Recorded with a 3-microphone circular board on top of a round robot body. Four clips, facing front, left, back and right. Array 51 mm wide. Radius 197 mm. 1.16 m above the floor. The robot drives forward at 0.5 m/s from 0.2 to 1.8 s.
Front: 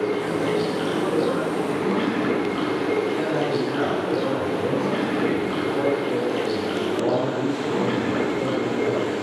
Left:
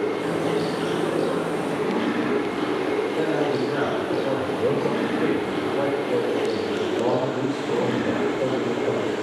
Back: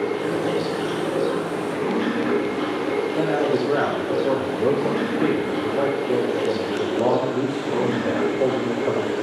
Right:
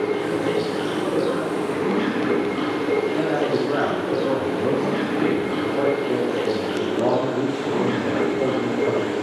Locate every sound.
0.0 s running water: 40° right, 8 m; by 9.2 s 45° right, 7.5 m
3.1 s a man speaking: 145° right, 3.5 m